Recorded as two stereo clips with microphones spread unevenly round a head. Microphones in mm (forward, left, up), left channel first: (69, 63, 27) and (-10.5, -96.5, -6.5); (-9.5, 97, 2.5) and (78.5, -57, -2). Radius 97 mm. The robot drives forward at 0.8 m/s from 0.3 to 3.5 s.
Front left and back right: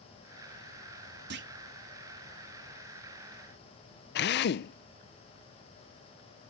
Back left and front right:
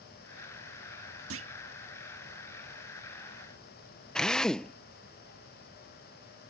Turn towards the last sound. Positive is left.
turn(degrees=35)